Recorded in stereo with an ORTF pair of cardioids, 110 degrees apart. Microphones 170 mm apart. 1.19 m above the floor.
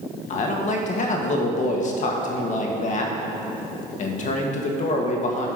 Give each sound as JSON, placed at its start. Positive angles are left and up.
{"t": 0.3, "sound": "a man speaking", "azimuth_deg": 50, "distance_m": 1.6}